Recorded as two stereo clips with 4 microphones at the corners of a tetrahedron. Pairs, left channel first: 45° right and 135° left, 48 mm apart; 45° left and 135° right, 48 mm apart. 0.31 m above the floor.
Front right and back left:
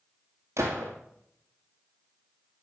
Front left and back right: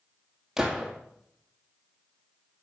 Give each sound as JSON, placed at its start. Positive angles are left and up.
{"t": 0.6, "sound": "a gunshot", "azimuth_deg": 145, "distance_m": 1.9}